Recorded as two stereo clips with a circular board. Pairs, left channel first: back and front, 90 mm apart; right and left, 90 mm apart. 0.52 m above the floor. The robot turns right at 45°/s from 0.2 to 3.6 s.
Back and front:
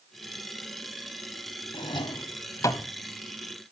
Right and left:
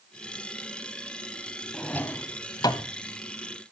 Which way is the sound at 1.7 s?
170° right.